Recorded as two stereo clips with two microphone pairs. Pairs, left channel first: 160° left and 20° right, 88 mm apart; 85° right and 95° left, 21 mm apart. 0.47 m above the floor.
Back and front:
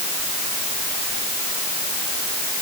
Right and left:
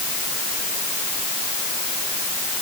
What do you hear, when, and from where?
Only background noise.